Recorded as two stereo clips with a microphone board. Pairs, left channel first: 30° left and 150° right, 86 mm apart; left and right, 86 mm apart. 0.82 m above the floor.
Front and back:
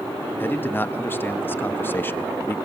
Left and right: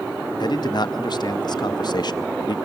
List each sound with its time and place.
0.4 s a man speaking: 90° left, 0.6 m